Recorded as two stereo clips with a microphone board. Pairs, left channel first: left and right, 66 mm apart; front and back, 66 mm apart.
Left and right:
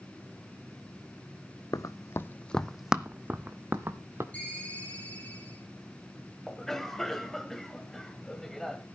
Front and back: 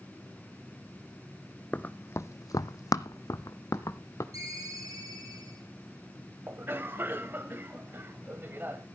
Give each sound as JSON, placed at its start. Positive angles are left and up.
{"t": 1.7, "sound": "running footsteps", "azimuth_deg": 70, "distance_m": 0.8}
{"t": 4.3, "sound": "a ringtone", "azimuth_deg": 160, "distance_m": 7.5}
{"t": 6.5, "sound": "a cough", "azimuth_deg": 170, "distance_m": 1.2}